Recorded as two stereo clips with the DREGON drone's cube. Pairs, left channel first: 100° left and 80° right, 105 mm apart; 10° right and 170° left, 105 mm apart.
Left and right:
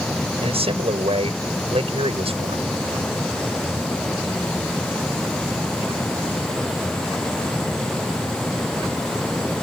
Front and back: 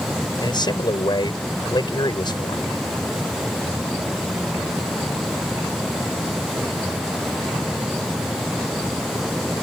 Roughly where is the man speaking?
Ahead right.